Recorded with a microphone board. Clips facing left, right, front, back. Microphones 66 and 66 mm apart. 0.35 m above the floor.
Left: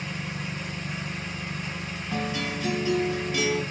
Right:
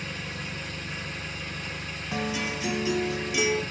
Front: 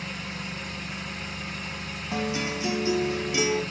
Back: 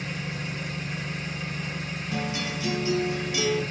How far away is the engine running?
About 1.9 m.